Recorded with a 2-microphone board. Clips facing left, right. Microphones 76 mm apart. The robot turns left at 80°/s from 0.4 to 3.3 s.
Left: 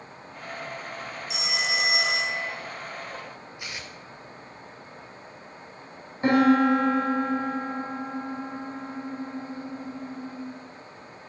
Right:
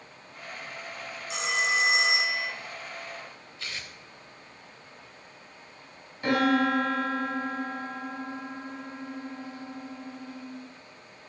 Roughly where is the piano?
Left.